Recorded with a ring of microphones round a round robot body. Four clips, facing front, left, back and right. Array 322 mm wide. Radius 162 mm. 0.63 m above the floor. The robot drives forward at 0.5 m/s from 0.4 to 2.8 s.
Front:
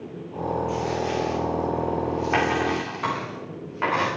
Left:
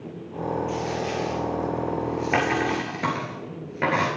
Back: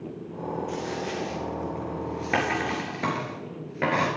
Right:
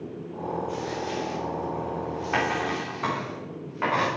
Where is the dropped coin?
120° left, 3 m; by 4.1 s 135° left, 4 m.